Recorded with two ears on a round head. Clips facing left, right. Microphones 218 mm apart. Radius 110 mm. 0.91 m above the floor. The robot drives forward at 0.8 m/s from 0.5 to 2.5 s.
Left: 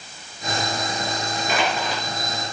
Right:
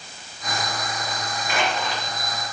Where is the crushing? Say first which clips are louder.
Left 1 dB; 75° left (ahead or behind), 3 m.